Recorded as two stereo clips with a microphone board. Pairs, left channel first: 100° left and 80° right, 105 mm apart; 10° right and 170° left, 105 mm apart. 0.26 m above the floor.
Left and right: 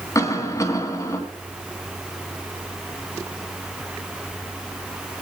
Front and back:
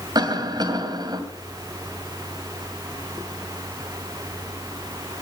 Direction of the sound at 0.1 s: 145° left.